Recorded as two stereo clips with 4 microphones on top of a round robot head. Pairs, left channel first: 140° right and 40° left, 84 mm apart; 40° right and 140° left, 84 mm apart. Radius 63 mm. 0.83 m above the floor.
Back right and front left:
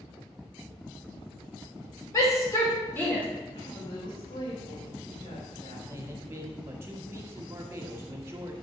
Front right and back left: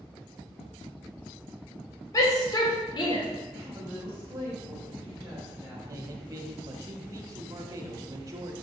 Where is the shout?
90° right, 3.5 m; by 3.2 s 70° right, 3 m.